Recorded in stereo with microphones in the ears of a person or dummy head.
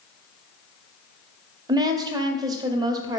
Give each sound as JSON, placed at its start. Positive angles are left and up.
{"t": 1.7, "sound": "a woman speaking", "side_deg": -20, "distance_m": 0.6}